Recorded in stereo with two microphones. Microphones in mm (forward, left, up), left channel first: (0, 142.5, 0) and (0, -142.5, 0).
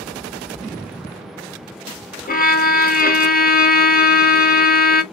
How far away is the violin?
About 0.7 m.